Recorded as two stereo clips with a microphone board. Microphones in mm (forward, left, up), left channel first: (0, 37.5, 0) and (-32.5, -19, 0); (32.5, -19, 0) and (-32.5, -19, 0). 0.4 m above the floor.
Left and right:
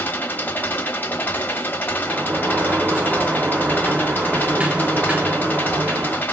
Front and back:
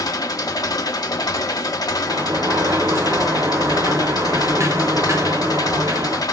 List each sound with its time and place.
0.0 s an engine running: straight ahead, 0.7 m
2.1 s a sliding door: 175° left, 0.5 m